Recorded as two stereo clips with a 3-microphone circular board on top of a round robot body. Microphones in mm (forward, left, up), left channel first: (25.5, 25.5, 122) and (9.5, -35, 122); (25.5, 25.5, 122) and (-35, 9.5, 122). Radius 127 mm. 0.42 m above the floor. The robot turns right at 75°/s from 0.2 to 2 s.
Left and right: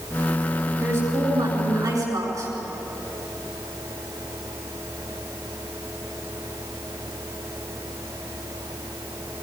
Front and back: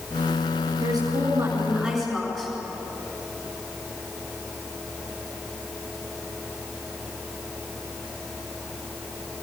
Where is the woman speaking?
160° right, 7.5 m; by 2.5 s 70° right, 7.5 m.